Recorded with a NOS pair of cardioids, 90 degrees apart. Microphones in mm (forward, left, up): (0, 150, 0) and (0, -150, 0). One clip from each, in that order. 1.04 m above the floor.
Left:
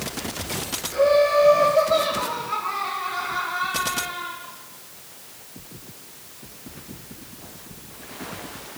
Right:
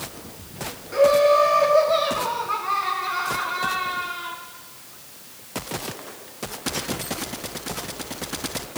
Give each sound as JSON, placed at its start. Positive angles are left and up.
{"t": 0.9, "sound": "laughter", "azimuth_deg": -30, "distance_m": 3.0}